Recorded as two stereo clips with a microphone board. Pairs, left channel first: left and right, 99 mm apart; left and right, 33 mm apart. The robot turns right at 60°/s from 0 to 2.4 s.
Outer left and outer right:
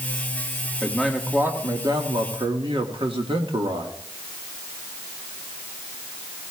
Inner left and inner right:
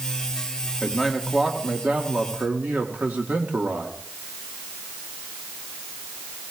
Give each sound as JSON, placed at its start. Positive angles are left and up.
{"t": 0.8, "sound": "a man speaking", "azimuth_deg": 170, "distance_m": 1.5}